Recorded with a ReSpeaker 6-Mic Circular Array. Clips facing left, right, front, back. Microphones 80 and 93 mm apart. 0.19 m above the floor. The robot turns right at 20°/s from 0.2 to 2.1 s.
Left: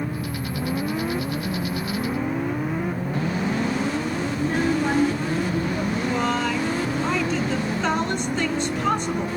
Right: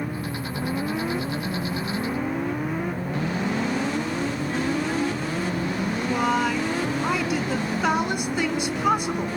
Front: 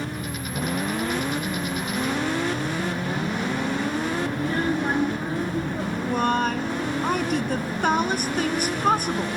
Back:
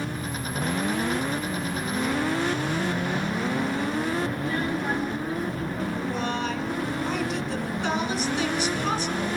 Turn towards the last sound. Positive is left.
turn(degrees=-15)